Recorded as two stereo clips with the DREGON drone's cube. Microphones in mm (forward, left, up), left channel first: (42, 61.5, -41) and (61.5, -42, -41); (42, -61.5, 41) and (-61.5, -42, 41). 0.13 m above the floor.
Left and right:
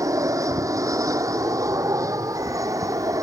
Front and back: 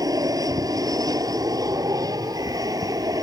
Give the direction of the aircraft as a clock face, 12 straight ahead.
5 o'clock.